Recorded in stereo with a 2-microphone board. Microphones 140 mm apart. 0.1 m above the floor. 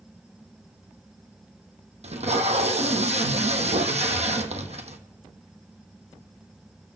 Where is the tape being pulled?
50° right (ahead or behind), 1.3 m.